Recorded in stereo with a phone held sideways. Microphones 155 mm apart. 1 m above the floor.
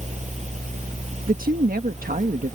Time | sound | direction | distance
0.0 | a fan | 50° right (ahead or behind) | ?
1.3 | a woman speaking | 70° right (ahead or behind) | ?